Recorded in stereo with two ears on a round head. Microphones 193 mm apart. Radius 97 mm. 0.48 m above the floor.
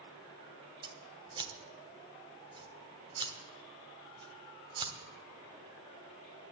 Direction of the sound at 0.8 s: 20° right (ahead or behind).